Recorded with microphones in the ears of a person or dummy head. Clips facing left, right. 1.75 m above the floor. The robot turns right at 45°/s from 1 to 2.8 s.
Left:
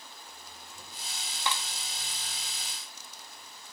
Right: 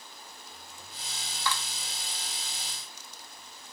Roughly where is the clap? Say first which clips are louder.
Right 1 dB; left.